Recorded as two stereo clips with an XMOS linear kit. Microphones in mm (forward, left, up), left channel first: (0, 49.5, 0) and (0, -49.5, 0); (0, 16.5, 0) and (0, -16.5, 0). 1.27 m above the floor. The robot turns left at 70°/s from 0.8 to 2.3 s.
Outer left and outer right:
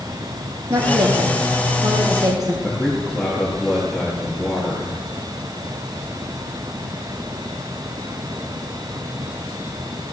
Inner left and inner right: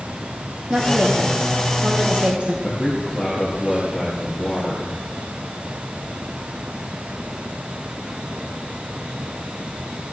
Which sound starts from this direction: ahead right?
A woman speaking, at 0.7 s.